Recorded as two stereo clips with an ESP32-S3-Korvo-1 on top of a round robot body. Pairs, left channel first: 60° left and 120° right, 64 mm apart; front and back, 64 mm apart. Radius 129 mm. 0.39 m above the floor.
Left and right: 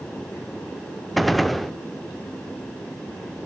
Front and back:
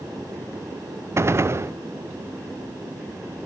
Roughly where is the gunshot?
Behind left.